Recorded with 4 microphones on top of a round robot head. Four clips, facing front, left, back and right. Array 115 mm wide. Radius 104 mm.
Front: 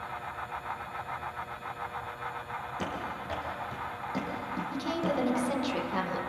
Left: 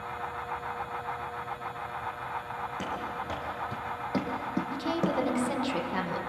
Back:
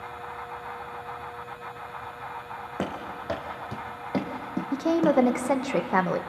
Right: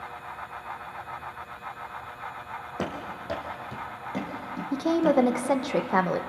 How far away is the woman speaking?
About 1.2 m.